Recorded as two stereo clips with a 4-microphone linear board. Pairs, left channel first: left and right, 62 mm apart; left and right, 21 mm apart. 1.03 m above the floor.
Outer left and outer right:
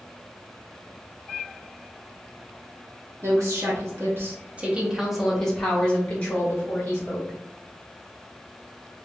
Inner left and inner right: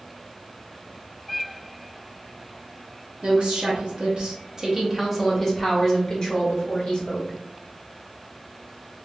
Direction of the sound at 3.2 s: 55° right (ahead or behind).